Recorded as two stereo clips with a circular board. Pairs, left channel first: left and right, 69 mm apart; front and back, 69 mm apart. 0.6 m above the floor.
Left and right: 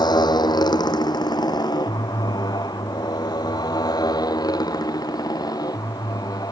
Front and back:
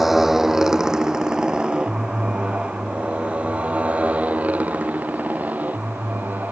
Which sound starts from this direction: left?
A motorcycle, at 0.0 s.